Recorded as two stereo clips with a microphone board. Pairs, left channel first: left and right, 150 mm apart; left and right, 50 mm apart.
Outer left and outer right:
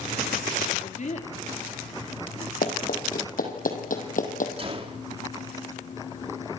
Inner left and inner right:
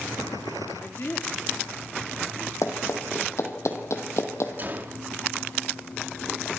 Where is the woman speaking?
55° left (ahead or behind), 4 m; by 2.5 s 45° left (ahead or behind), 4 m.